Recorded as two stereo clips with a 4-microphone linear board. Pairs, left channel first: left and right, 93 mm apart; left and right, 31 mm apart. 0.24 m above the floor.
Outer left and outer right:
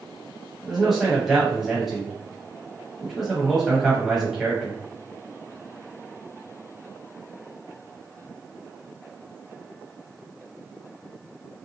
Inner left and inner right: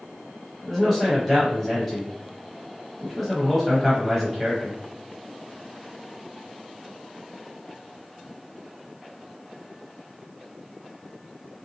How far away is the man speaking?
About 1.0 m.